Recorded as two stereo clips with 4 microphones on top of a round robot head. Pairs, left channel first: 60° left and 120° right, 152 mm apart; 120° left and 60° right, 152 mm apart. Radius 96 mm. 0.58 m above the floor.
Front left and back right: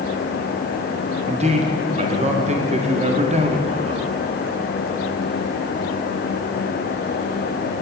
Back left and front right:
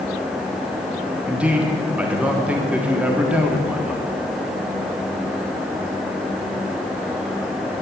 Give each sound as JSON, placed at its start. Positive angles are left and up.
{"t": 1.3, "sound": "a man speaking", "azimuth_deg": -135, "distance_m": 1.6}